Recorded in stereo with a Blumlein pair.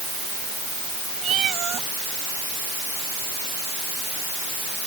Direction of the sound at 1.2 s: 30° right.